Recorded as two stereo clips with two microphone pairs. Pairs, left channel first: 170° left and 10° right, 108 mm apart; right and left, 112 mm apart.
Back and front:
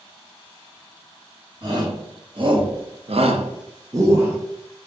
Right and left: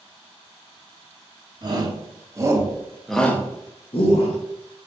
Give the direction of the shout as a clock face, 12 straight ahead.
11 o'clock.